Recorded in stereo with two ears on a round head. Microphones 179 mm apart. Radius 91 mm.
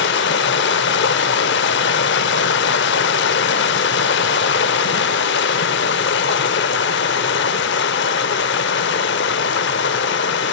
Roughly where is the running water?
Left.